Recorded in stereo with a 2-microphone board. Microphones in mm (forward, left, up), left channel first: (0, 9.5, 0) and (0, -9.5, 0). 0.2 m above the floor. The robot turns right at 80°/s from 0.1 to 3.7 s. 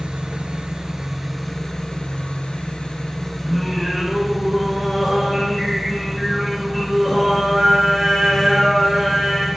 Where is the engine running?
100° right, 1.1 m; by 9.6 s 175° right, 1.1 m.